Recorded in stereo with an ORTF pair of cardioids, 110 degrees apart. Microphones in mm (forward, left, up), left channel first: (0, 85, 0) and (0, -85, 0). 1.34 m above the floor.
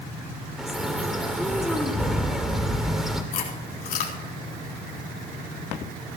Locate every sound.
0.6 s a bird: straight ahead, 2 m
3.3 s chewing: 55° left, 4 m